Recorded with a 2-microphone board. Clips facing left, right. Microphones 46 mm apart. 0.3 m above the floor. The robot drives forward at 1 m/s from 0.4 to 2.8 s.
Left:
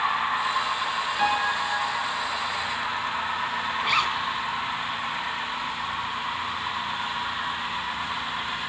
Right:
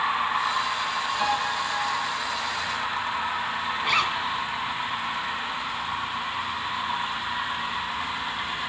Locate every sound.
1.2 s a piano: 30° left (ahead or behind), 3.5 m; by 2.0 s 40° left (ahead or behind), 2.5 m
3.8 s a zipper: centre (ahead or behind), 1.9 m